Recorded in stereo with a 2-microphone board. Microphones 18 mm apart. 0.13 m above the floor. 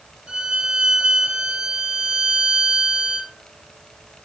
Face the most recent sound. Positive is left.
turn(degrees=-60)  # may be behind; listen again after turning